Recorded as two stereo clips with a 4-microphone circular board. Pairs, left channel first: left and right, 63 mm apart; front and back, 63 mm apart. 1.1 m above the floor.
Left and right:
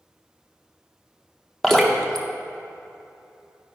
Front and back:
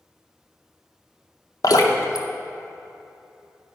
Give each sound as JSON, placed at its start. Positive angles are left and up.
{"t": 1.6, "sound": "dripping", "azimuth_deg": 10, "distance_m": 0.7}